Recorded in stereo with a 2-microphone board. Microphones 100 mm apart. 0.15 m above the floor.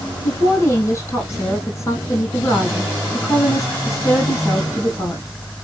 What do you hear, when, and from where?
0.2 s a woman speaking: 35° left (ahead or behind), 5 m